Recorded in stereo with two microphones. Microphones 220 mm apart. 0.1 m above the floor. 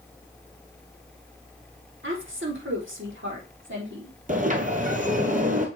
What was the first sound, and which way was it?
A woman speaking, 70° right (ahead or behind).